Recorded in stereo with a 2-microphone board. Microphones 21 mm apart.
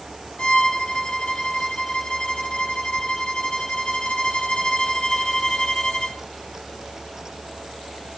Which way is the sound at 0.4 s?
40° left (ahead or behind).